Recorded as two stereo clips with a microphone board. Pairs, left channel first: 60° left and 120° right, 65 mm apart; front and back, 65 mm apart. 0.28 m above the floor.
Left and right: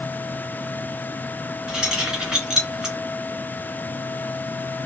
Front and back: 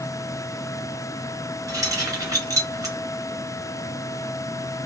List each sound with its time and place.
1.7 s keys jangling: 160° left, 1.9 m